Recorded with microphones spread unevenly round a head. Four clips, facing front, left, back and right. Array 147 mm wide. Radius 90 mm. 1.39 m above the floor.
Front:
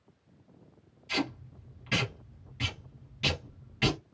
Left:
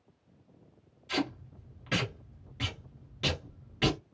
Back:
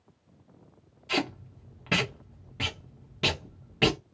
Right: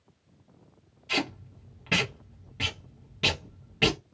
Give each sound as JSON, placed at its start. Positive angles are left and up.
{"t": 1.1, "sound": "tape being pulled", "azimuth_deg": 180, "distance_m": 1.1}